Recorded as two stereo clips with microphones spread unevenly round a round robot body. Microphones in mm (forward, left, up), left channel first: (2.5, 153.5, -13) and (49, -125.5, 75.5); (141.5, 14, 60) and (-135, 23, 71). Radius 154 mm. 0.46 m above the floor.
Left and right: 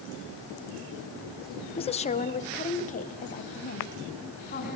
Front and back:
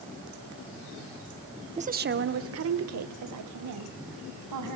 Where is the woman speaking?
120° left, 0.9 m; by 4.8 s 160° left, 3.5 m.